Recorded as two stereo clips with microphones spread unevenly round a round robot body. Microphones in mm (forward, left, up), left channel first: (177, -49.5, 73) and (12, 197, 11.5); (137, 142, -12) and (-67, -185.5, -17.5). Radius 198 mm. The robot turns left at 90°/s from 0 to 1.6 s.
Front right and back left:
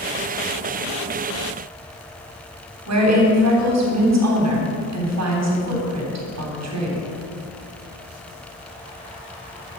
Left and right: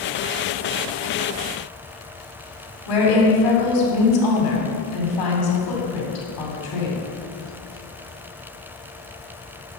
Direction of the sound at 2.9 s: 95° left.